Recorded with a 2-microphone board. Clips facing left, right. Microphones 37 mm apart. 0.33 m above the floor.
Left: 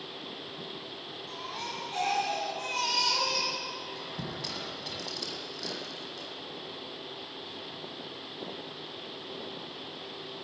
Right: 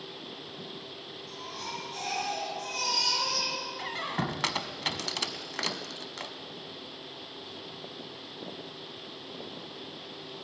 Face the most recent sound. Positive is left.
turn(degrees=-65)  # may be behind; listen again after turning